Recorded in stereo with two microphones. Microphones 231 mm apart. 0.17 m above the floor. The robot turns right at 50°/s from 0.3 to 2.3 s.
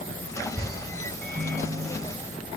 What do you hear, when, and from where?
1.2 s a microwave: 95° right, 1.4 m; by 2.5 s 40° right, 1.4 m